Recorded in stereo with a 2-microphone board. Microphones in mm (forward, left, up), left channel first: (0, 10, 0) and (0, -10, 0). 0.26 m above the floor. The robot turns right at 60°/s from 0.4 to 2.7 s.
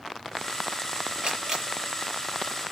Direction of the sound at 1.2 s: 50° right (ahead or behind).